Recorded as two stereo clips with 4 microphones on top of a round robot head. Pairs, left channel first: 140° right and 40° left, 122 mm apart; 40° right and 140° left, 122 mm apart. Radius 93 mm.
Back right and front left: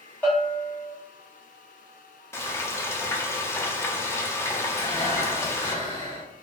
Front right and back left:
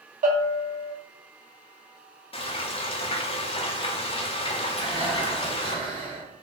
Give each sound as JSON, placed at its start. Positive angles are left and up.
{"t": 0.2, "sound": "a bell", "azimuth_deg": 145, "distance_m": 0.9}
{"t": 2.3, "sound": "frying", "azimuth_deg": -70, "distance_m": 0.6}
{"t": 4.8, "sound": "breathing", "azimuth_deg": 165, "distance_m": 1.6}